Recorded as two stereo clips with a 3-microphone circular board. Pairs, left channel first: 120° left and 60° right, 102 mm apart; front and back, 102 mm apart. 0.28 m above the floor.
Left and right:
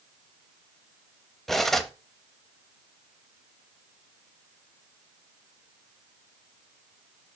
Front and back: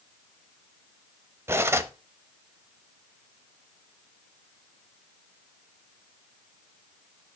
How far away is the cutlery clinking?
About 0.6 m.